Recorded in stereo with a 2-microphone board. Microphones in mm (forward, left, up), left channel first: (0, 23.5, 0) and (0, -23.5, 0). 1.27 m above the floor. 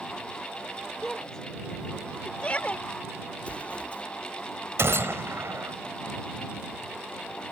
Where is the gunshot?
70° right (ahead or behind).